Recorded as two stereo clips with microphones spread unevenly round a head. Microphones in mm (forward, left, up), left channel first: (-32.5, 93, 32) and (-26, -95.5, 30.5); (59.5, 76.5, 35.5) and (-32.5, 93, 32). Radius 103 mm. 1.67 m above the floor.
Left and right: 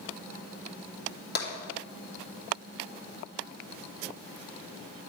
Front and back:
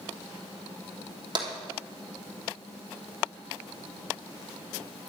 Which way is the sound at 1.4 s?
130° left.